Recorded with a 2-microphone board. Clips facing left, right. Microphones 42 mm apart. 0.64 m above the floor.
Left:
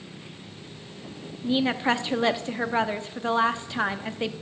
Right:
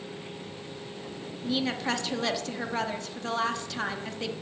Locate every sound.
1.4 s a woman speaking: 25° left (ahead or behind), 0.7 m